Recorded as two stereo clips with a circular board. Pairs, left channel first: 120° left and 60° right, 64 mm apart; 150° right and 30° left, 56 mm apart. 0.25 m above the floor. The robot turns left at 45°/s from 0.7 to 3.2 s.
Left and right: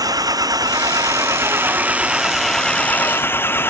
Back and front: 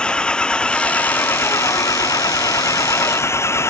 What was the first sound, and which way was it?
An engine running, 75° right.